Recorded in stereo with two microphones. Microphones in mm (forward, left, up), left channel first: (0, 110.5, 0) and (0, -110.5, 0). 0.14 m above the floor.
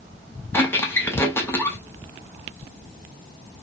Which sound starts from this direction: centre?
A squeak, at 0.5 s.